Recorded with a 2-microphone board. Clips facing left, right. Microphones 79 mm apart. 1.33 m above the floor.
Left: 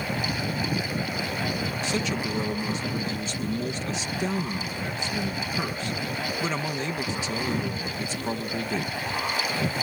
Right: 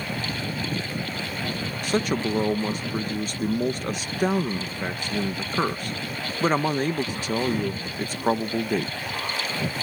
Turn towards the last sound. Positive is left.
turn(degrees=-45)  # may be behind; listen again after turning